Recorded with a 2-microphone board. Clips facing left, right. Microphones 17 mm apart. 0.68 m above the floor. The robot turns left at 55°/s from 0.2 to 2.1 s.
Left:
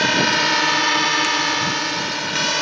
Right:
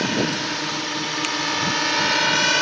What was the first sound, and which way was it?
A drone, 40° left (ahead or behind).